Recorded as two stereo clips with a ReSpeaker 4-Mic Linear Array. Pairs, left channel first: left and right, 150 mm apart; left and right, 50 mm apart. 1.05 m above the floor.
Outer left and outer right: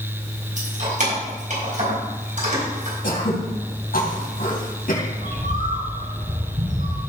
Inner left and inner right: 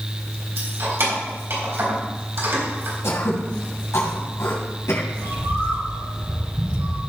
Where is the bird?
65° right (ahead or behind), 4.5 m.